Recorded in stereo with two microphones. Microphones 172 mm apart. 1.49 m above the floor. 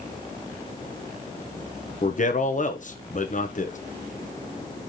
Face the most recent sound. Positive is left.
turn(degrees=45)  # may be behind; listen again after turning